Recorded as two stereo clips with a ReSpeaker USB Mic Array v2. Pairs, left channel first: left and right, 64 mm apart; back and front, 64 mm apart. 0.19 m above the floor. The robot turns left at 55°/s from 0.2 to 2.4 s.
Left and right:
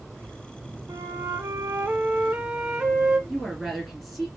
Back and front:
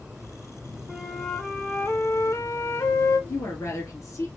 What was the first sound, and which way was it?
A flute, 75° right.